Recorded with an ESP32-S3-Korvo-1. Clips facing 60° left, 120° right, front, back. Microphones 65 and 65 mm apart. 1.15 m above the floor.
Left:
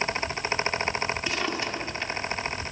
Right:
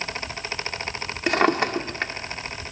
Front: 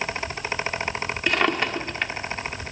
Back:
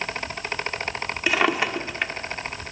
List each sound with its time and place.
1.3 s a drawer: 100° right, 1.5 m